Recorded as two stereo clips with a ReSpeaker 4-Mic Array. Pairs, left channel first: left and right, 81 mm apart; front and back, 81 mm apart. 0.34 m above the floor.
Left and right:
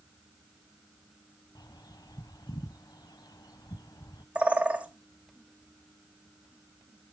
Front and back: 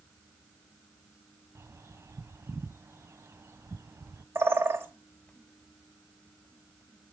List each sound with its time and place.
1.6 s a bird: 125° left, 0.5 m
4.3 s a bird: 150° right, 1.3 m